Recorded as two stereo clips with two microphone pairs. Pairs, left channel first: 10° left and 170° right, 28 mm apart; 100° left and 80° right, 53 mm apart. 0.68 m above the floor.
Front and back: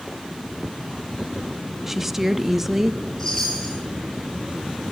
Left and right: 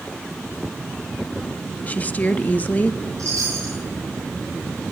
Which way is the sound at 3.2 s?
60° right.